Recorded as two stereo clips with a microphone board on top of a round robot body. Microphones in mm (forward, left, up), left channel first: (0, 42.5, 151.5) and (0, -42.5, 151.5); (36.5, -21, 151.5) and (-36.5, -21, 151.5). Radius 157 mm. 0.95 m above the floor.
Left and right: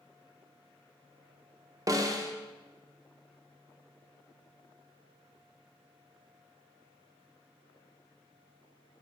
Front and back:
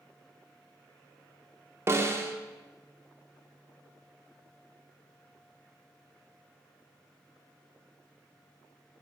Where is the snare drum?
130° right, 0.9 m.